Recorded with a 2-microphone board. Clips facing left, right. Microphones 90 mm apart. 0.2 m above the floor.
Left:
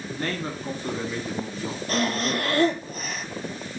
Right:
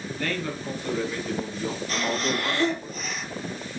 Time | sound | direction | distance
0.1 | a man speaking | 35° left (ahead or behind) | 1.6 m
1.9 | breathing | 50° left (ahead or behind) | 0.8 m